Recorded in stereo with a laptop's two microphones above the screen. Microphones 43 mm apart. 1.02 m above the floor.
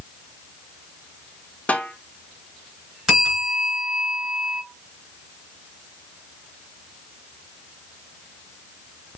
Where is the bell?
10° right (ahead or behind), 3 m.